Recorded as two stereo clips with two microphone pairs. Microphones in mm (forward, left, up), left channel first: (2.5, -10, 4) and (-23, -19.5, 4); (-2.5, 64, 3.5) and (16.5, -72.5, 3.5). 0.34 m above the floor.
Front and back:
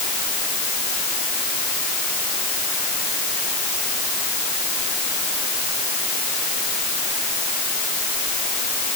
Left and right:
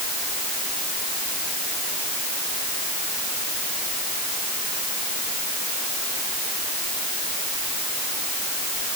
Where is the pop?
I don't hear a pop.